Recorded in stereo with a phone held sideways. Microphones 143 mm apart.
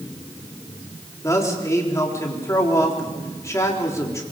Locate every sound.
1.2 s a man speaking: 20° left (ahead or behind), 4 m